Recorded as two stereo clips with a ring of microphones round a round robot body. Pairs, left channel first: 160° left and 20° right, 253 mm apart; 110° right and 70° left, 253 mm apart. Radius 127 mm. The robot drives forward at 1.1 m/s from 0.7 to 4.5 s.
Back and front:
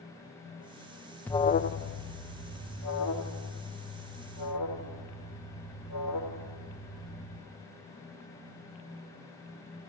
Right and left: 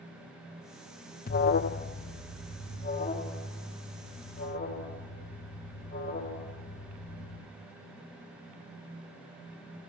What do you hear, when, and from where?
1.3 s an alarm: 125° right, 0.5 m; by 7.4 s 175° right, 3.5 m